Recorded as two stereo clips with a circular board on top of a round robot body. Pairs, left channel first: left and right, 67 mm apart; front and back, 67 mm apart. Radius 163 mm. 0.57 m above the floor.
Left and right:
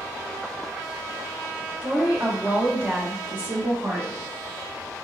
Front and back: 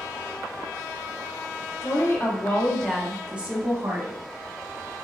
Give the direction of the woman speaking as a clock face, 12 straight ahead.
1 o'clock.